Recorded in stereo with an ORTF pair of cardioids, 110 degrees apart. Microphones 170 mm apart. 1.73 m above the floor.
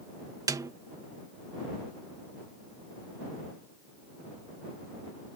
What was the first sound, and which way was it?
A snare drum, 20° right.